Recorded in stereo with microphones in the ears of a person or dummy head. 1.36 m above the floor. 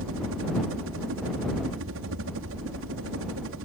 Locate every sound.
0.0 s a helicopter: 65° right (ahead or behind)